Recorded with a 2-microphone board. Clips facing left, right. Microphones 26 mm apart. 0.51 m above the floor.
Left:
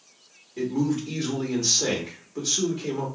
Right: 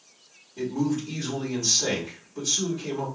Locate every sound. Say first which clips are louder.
0.6 s a man speaking: left 1 dB; 50° left (ahead or behind), 1.3 m